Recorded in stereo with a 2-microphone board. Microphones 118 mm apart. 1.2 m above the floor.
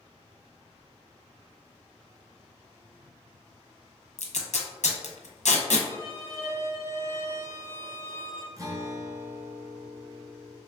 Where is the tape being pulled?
75° left (ahead or behind), 0.6 m.